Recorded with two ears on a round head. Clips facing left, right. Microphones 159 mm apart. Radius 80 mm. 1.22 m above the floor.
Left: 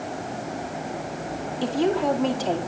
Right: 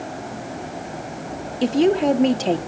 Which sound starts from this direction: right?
A woman speaking, at 1.6 s.